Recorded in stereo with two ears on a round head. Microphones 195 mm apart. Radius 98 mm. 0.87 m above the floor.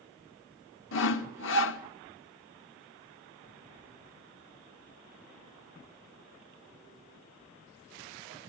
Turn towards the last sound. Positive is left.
turn(degrees=65)  # may be behind; listen again after turning